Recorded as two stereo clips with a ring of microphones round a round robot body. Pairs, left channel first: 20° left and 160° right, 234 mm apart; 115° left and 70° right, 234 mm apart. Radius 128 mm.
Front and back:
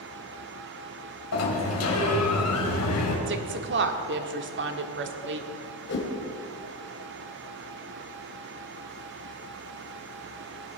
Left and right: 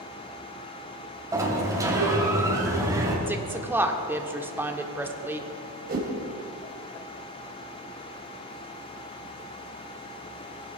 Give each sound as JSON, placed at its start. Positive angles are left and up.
{"t": 1.3, "sound": "a sliding door", "azimuth_deg": 10, "distance_m": 3.5}
{"t": 3.3, "sound": "a woman speaking", "azimuth_deg": -145, "distance_m": 1.5}
{"t": 5.9, "sound": "a whoosh", "azimuth_deg": -15, "distance_m": 3.0}